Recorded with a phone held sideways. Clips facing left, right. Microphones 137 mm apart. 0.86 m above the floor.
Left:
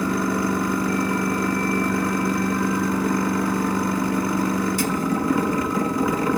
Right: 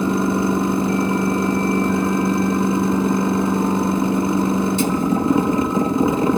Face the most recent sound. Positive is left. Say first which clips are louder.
# right 4 dB
turn(degrees=-25)  # may be behind; listen again after turning